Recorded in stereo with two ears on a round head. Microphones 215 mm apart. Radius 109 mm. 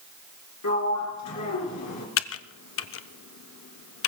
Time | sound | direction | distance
0.6 | a sliding door | 80° left | 2.5 m
2.2 | typing on a keyboard | 60° left (ahead or behind) | 0.6 m